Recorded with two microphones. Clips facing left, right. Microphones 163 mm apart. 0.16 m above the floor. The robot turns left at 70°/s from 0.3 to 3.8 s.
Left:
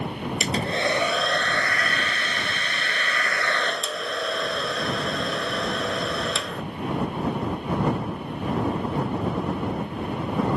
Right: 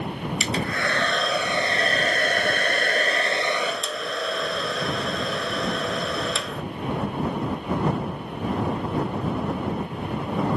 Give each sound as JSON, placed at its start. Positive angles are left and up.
{"t": 0.4, "sound": "a hair dryer", "azimuth_deg": 60}